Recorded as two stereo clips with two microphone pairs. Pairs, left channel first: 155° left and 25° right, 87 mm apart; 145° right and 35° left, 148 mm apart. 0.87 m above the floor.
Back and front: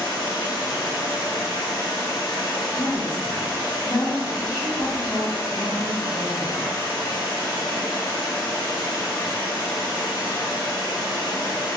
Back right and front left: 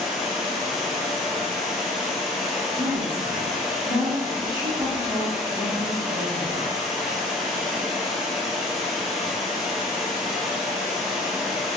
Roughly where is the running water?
Behind left.